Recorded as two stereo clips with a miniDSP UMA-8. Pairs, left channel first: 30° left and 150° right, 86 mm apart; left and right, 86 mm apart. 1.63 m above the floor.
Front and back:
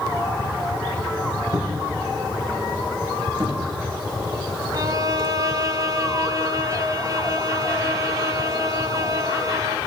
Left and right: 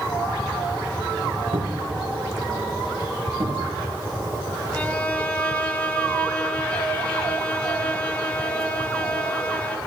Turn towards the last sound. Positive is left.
turn(degrees=165)